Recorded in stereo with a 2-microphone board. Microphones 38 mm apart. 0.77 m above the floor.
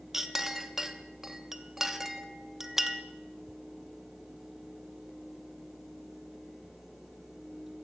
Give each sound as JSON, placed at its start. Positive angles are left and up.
{"t": 0.1, "sound": "a clink", "side_deg": -10, "distance_m": 0.7}